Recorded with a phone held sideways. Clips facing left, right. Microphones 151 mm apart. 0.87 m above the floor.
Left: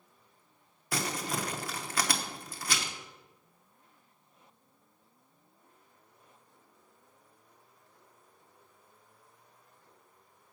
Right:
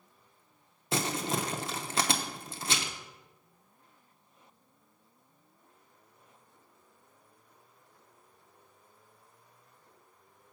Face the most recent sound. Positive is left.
turn(degrees=-25)  # may be behind; listen again after turning